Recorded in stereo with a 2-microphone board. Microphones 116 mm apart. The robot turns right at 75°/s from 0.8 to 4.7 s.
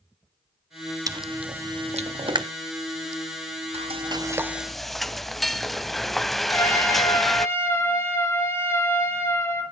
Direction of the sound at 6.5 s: 25° left (ahead or behind).